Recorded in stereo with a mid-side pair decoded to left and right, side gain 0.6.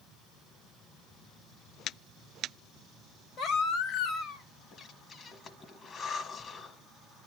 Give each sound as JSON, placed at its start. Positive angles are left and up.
{"t": 3.4, "sound": "a baby crying", "azimuth_deg": 60, "distance_m": 1.9}
{"t": 4.7, "sound": "breathing", "azimuth_deg": 40, "distance_m": 1.4}